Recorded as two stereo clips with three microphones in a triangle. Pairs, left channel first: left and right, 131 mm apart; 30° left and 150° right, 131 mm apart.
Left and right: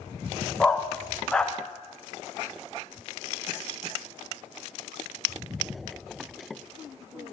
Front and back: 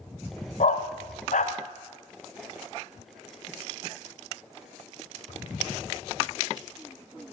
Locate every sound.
0.6 s a dog barking: 5° left, 1.0 m